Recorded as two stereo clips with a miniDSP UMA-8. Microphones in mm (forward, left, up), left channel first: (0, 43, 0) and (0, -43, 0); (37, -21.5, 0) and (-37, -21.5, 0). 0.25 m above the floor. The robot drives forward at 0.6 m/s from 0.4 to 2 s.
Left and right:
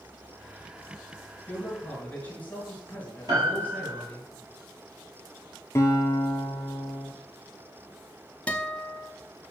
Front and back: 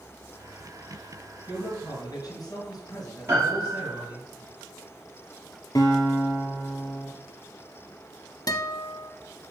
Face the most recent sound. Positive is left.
turn(degrees=15)